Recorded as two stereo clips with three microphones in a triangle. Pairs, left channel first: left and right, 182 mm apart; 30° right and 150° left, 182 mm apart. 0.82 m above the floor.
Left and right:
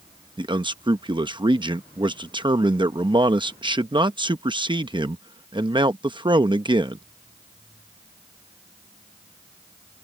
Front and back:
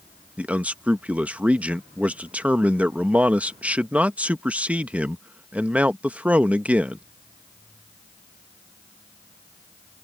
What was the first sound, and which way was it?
A man speaking, 130° right.